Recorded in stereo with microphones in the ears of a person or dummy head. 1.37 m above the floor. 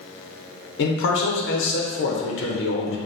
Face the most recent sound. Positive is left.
turn(degrees=70)  # may be behind; listen again after turning